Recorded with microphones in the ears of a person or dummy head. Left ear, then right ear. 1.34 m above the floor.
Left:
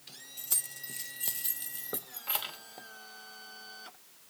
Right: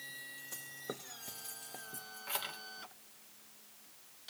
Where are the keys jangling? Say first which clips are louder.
Left 9 dB; 75° left (ahead or behind), 1.3 m; by 2.6 s centre (ahead or behind), 1.1 m.